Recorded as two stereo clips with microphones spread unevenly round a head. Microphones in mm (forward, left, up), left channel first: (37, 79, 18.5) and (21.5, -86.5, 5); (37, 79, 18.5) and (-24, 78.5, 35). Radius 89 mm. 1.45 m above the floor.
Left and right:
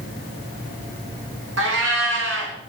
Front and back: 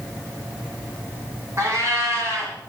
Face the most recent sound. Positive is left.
turn(degrees=-115)